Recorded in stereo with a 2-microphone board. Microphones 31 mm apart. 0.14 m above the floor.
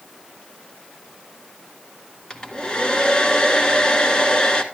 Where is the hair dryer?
25° left (ahead or behind), 1.5 m.